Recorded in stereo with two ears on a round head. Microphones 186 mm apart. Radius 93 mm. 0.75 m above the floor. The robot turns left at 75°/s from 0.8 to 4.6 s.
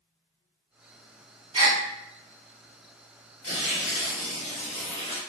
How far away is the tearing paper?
About 1.4 m.